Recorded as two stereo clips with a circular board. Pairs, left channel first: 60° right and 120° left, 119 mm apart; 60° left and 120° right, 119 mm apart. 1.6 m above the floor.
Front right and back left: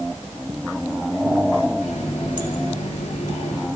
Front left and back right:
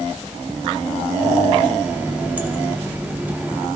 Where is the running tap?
45° right, 2.5 m.